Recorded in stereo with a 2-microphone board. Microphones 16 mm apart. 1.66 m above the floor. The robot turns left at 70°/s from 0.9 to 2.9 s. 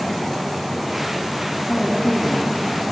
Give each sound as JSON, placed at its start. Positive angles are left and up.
{"t": 1.7, "sound": "a woman speaking", "azimuth_deg": 55, "distance_m": 2.5}